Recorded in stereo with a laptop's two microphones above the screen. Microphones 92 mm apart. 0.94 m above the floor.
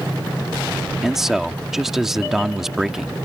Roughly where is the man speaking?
Centre.